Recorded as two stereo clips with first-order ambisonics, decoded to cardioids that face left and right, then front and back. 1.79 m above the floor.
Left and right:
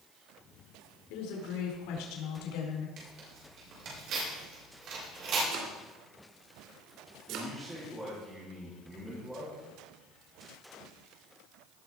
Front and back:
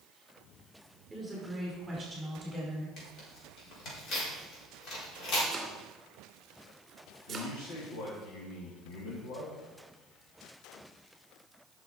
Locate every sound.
1.1 s a woman speaking: 95° left, 5 m; by 2.9 s 80° left, 4.5 m
3.0 s tearing paper: 45° right, 5 m
5.5 s chopping: 110° right, 2.5 m
7.3 s a man speaking: 15° right, 4 m